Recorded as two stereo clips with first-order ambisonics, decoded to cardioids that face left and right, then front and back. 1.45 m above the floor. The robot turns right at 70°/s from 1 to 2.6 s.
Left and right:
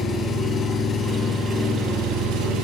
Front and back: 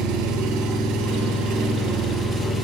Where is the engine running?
160° left, 6.5 m; by 2.6 s 90° right, 6.5 m.